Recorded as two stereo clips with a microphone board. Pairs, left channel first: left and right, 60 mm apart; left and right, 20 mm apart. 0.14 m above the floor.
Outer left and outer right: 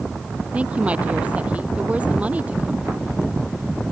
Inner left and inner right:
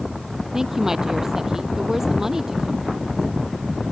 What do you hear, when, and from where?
0.5 s a woman speaking: 20° right (ahead or behind)